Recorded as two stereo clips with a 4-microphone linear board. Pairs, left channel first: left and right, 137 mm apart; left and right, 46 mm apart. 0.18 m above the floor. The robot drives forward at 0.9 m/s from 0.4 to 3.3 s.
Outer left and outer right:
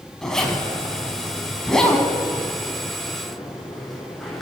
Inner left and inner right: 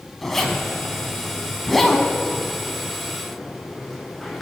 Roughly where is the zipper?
Centre.